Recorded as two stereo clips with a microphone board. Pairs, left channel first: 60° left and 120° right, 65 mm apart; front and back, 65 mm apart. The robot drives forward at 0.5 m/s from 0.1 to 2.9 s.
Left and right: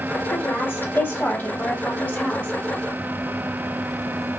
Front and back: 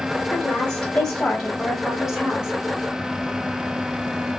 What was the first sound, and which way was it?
A woman speaking, 50° left.